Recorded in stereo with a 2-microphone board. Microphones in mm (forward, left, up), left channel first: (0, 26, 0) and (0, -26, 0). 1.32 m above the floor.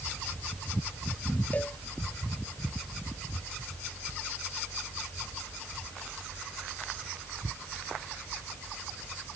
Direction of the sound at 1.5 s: 30° left (ahead or behind).